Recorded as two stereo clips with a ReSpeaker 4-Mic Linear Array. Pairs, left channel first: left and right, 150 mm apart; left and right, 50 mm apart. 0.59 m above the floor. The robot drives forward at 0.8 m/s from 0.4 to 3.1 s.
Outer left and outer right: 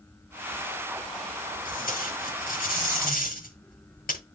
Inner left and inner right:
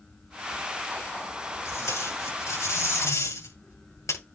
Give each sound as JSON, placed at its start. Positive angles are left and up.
{"t": 1.6, "sound": "tape being pulled", "side_deg": 70, "distance_m": 8.0}